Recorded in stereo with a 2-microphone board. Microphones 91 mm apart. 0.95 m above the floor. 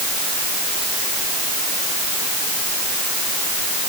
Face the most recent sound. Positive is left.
No sound to turn to.